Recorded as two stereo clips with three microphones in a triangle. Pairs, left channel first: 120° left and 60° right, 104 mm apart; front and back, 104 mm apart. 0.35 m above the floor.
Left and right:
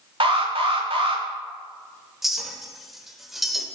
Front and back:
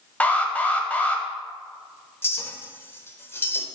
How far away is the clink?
About 0.6 m.